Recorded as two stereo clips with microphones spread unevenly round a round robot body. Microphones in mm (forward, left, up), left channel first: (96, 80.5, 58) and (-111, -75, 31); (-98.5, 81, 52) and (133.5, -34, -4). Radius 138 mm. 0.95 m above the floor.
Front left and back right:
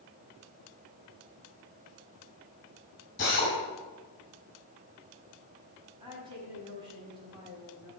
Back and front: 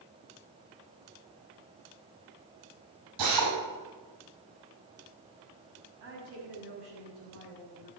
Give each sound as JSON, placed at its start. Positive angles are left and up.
{"t": 3.2, "sound": "a drill", "azimuth_deg": -20, "distance_m": 5.5}
{"t": 6.0, "sound": "a woman speaking", "azimuth_deg": -70, "distance_m": 6.0}